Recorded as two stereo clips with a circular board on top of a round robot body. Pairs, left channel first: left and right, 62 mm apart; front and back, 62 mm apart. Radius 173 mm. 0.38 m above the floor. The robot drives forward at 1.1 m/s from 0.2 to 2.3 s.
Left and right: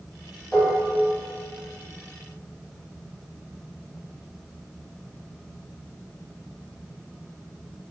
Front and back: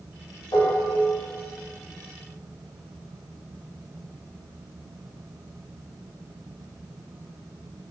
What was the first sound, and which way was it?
Dishes clattering, 10° left.